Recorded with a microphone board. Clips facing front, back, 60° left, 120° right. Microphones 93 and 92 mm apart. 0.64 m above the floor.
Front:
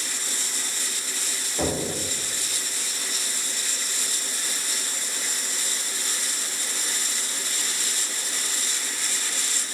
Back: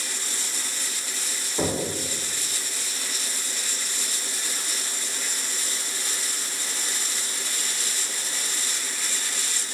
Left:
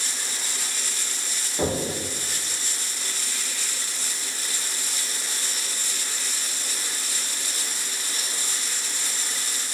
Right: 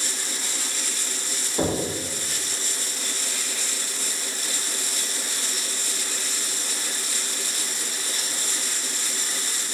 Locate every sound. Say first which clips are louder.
1.6 s knocking: even, right 1 dB; 130° right, 1.6 m